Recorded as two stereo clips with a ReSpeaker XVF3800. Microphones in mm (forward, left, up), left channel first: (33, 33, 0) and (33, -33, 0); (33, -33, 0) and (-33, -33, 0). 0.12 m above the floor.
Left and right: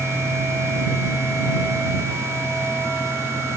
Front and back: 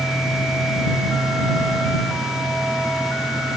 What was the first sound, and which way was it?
Only background noise.